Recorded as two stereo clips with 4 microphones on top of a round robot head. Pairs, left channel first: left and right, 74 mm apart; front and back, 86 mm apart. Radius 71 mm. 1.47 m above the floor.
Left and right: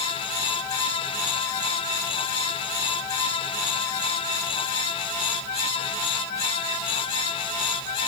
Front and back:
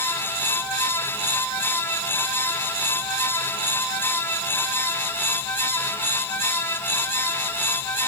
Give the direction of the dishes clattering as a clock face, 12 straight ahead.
I don't hear dishes clattering.